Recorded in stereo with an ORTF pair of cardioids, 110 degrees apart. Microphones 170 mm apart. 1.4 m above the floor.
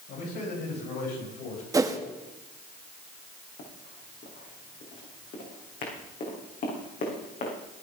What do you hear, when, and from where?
0.1 s a man speaking: 70° left, 9 m; by 1.6 s 75° left, 9 m
1.7 s a whoosh: 20° right, 1.5 m
3.6 s running footsteps: 60° left, 6 m